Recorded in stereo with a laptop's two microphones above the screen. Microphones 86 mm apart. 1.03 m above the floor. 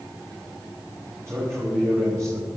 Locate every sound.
1.3 s a man speaking: 35° right (ahead or behind), 4.5 m; by 2.5 s 45° right (ahead or behind), 4 m